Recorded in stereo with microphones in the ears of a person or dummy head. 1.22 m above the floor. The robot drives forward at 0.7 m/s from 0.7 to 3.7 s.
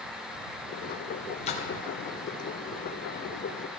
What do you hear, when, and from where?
1.5 s a splash: 40° left (ahead or behind), 0.8 m; by 1.7 s 35° left (ahead or behind), 0.9 m